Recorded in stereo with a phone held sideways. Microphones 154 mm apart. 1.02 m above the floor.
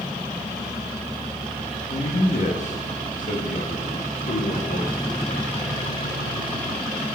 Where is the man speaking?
40° left (ahead or behind), 1.5 m; by 5.7 s 75° left (ahead or behind), 2.5 m.